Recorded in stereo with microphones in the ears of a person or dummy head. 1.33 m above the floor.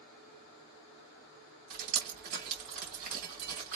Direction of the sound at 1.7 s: 50° right (ahead or behind).